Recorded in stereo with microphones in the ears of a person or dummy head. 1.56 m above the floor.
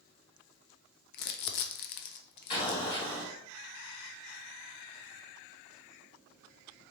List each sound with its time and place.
1.1 s crumpling: 55° left (ahead or behind), 0.5 m
2.5 s an explosion: 40° left (ahead or behind), 1.9 m